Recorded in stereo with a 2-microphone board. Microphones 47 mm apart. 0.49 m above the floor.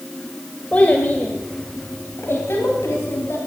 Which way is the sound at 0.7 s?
30° left (ahead or behind).